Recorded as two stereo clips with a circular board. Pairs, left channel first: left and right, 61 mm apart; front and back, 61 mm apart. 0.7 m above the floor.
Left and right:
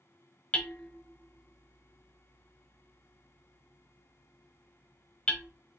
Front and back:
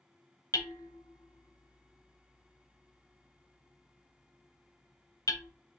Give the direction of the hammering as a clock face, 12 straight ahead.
11 o'clock.